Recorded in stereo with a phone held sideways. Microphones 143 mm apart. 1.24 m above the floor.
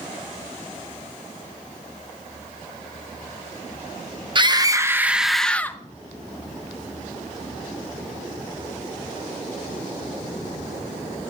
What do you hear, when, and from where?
4.3 s a scream: 35° right (ahead or behind), 1.0 m; by 5.8 s 15° left (ahead or behind), 1.0 m